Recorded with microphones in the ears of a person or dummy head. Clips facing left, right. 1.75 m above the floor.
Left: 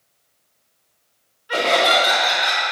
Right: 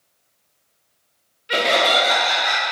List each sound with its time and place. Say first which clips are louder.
1.5 s laughter: left 1 dB; 30° right (ahead or behind), 0.8 m; by 2.6 s 30° left (ahead or behind), 1.9 m